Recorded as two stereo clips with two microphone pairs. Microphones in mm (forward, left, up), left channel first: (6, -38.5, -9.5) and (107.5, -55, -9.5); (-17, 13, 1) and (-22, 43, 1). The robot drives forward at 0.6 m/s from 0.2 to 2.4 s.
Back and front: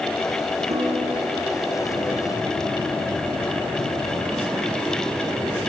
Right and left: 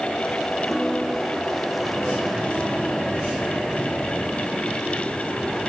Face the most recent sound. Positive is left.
turn(degrees=5)